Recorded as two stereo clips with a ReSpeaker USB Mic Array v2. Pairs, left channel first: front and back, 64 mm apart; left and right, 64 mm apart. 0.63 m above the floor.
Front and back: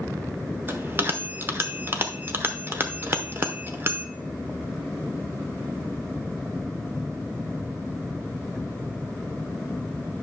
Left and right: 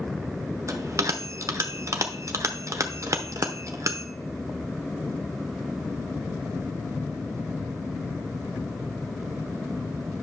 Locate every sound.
0.7 s a bell: 125° right, 0.9 m